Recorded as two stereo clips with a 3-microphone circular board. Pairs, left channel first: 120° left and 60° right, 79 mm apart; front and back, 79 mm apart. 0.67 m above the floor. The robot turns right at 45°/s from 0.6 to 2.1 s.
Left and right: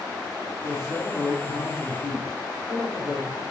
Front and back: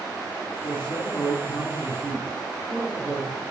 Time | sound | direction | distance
0.6 | a man speaking | 20° right | 5.5 m